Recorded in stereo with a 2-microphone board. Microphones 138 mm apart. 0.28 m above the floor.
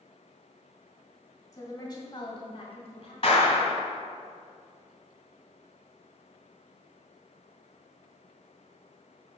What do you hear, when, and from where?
1.5 s a woman speaking: 25° left (ahead or behind), 1.7 m; by 3.1 s 50° left (ahead or behind), 2.5 m
3.2 s a clap: 50° left (ahead or behind), 1.7 m